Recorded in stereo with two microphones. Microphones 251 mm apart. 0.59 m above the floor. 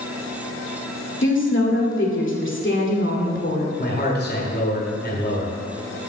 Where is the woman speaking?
45° left (ahead or behind), 2 m.